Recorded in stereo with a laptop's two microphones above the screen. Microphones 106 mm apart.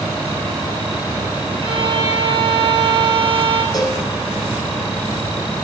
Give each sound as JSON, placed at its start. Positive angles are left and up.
{"t": 1.6, "sound": "a violin", "side_deg": -45, "distance_m": 6.5}
{"t": 3.7, "sound": "a cowbell", "side_deg": 35, "distance_m": 3.0}